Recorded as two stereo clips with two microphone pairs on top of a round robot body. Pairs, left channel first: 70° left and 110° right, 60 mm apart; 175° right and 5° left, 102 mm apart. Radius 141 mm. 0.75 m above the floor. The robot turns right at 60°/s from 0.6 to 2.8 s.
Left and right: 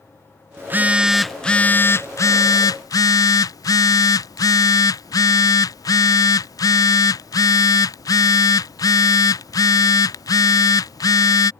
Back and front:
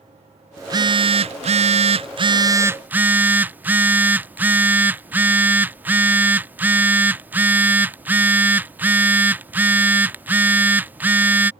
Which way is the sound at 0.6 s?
55° right.